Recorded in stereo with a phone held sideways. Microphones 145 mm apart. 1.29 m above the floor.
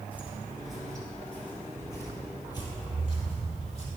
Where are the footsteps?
10° right (ahead or behind), 1.7 m; by 3.9 s 45° left (ahead or behind), 2.5 m.